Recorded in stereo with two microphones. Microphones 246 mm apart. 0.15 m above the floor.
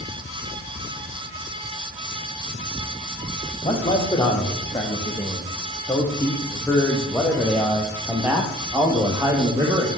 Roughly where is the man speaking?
Left.